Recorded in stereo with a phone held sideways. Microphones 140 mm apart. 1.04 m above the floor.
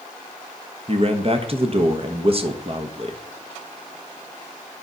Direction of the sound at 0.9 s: 40° right (ahead or behind).